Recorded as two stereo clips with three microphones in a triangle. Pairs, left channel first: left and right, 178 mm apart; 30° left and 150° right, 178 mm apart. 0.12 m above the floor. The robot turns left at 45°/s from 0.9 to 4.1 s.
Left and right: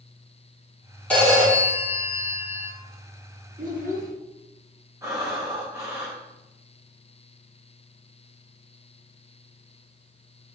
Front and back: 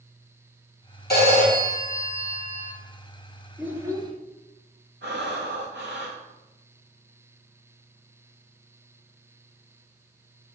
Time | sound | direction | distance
1.1 | a phone ringing | 5° left | 3 m
3.6 | a child speaking | 70° right | 1.4 m
5.0 | breathing | 165° right | 1.9 m